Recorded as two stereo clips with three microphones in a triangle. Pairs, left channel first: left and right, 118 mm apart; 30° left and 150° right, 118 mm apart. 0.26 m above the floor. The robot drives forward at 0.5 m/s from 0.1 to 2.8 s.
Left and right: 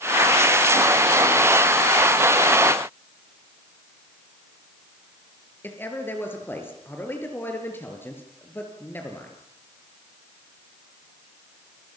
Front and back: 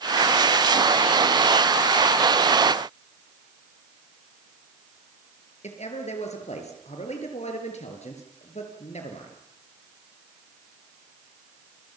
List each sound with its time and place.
5.6 s a man speaking: 20° left, 6 m